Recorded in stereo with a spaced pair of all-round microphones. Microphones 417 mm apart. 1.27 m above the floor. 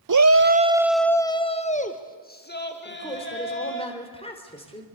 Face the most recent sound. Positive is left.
turn(degrees=15)  # may be behind; listen again after turning